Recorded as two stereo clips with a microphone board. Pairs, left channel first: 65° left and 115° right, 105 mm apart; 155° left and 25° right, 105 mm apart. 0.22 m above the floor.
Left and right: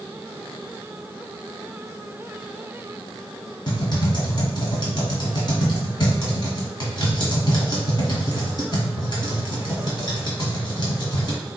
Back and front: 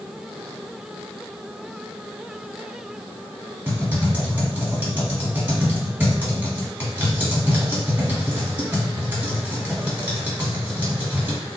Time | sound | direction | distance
3.7 | typing on a keyboard | 45° left | 1.3 m